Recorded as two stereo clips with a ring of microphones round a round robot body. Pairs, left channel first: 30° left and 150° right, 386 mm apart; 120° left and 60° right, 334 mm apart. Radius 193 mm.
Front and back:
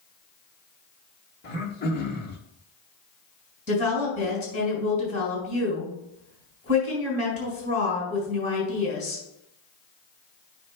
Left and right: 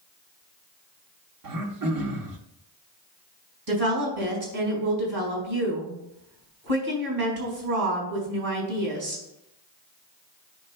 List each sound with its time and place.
1.4 s throat clearing: 35° right, 1.3 m
3.7 s a woman speaking: 45° right, 4.5 m